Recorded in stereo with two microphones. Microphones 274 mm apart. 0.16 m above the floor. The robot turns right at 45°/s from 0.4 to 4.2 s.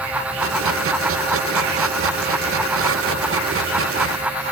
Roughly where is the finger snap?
No finger snap in this recording.